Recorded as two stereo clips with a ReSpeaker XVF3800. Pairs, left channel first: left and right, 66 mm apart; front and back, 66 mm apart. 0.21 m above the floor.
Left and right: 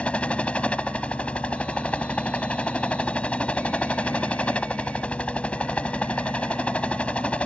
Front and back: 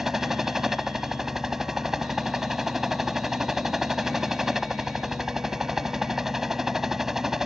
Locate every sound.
0.0 s a helicopter: 110° left